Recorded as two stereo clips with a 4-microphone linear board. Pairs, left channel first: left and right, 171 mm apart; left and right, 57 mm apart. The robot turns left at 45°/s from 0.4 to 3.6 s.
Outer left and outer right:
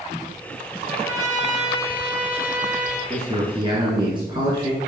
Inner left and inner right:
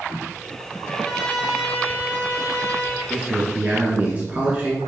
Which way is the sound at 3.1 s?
35° right (ahead or behind).